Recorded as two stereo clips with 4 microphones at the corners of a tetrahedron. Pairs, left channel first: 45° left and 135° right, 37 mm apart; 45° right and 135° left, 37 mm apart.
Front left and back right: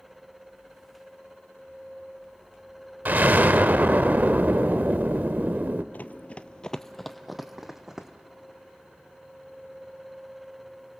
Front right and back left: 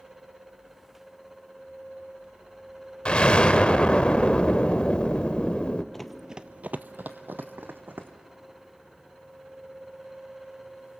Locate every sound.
3.0 s an explosion: 105° right, 0.6 m
5.9 s running footsteps: 35° left, 0.7 m; by 8.1 s 150° left, 1.8 m